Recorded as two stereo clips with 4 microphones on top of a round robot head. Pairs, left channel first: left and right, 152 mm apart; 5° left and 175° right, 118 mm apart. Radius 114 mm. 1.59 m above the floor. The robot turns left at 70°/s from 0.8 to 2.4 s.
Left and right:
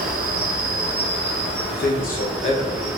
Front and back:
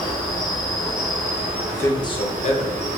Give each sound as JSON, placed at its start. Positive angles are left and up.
{"t": 0.0, "sound": "an insect", "azimuth_deg": -60, "distance_m": 0.7}
{"t": 1.7, "sound": "a man speaking", "azimuth_deg": 85, "distance_m": 1.2}